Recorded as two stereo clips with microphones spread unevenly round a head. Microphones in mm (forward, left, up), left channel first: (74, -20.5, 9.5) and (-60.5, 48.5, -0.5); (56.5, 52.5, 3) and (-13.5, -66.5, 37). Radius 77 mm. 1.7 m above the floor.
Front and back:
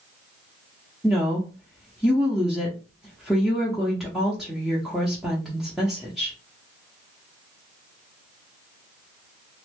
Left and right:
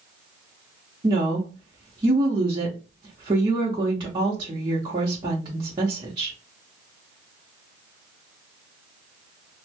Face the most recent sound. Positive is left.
turn(degrees=-115)